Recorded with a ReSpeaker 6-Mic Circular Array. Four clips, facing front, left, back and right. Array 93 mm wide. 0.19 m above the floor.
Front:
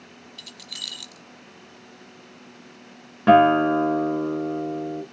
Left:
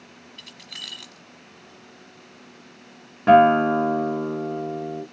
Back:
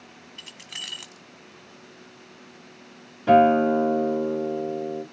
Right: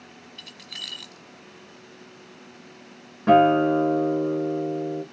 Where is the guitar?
15° left, 2.5 m.